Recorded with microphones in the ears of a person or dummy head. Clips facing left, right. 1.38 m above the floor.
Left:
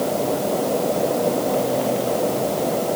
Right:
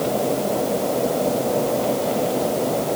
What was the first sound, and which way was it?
Only background noise.